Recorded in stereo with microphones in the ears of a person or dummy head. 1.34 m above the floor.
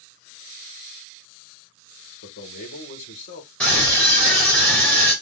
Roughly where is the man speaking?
Left.